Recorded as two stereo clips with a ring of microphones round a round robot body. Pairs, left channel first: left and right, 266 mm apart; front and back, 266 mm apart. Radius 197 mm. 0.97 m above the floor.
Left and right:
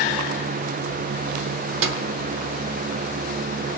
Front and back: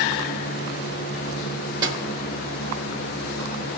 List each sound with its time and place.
1.8 s a snare drum: 105° right, 0.8 m